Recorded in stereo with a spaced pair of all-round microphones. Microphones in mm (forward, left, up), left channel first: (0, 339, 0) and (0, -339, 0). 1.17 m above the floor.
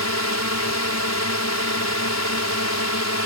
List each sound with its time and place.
0.0 s a drone: 20° left (ahead or behind)